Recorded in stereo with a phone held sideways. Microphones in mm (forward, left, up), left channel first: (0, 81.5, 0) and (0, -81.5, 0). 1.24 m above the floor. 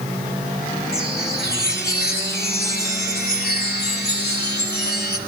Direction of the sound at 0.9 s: 80° left.